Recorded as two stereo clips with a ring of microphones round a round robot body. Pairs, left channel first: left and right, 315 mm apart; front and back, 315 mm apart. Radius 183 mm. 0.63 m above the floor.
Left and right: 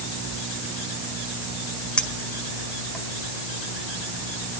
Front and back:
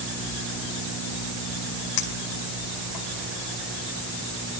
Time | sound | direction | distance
2.0 | a clink | 5° left | 2.5 m